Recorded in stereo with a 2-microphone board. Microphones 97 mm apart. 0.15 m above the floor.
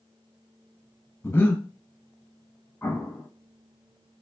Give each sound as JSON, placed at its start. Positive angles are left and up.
{"t": 1.2, "sound": "breathing", "side_deg": 25, "distance_m": 0.6}
{"t": 2.8, "sound": "an explosion", "side_deg": 25, "distance_m": 0.6}